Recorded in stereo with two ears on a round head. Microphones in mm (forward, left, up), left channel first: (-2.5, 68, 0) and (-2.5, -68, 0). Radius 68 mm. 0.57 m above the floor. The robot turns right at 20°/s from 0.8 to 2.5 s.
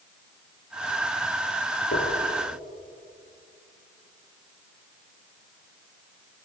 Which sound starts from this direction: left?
Knocking, at 1.9 s.